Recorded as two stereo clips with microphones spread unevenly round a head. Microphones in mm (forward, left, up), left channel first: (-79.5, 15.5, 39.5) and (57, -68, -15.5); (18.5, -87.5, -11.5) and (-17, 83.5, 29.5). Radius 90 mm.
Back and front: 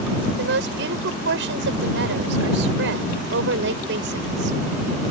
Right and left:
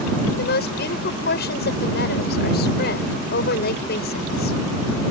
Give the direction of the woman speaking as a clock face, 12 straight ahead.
1 o'clock.